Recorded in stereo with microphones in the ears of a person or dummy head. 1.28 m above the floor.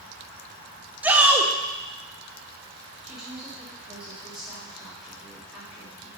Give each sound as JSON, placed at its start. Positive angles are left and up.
{"t": 1.0, "sound": "a shout", "side_deg": -10, "distance_m": 0.7}
{"t": 3.0, "sound": "a woman speaking", "side_deg": -5, "distance_m": 2.5}